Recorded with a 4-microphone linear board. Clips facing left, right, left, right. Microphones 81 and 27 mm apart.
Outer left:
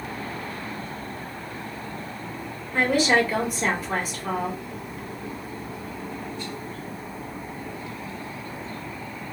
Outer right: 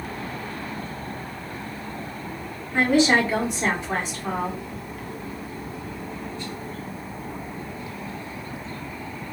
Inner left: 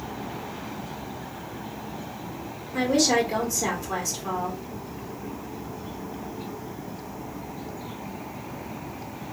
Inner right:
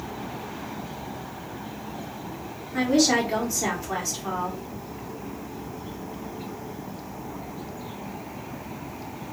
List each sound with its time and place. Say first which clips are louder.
2.7 s a woman speaking: outer right 2 dB, inner right 1 dB; 25° right (ahead or behind), 2.0 m